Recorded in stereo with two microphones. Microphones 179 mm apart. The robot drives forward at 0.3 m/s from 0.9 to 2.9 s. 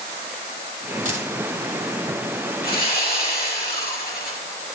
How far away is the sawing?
About 5.5 m.